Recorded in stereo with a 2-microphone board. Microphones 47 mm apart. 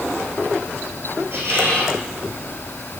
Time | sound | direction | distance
1.3 | a squeak | 55° right (ahead or behind) | 3.5 m